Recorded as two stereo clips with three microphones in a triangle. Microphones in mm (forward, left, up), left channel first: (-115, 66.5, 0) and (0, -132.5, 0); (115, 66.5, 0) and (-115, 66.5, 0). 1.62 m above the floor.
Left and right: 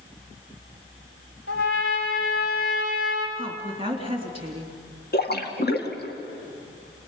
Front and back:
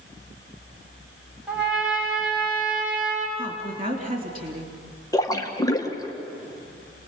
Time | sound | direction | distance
1.5 | a trumpet | 95° left | 5 m
3.4 | a woman speaking | 125° right | 3.5 m
5.1 | a splash | 75° left | 1.8 m